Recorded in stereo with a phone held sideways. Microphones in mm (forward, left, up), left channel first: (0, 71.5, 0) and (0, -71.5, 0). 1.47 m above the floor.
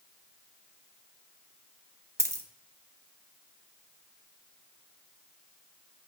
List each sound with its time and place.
2.2 s a dropped coin: 20° right (ahead or behind), 0.8 m